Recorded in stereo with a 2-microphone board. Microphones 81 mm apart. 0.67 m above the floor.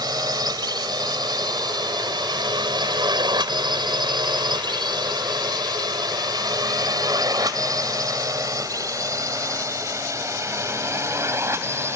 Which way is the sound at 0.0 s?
55° right (ahead or behind).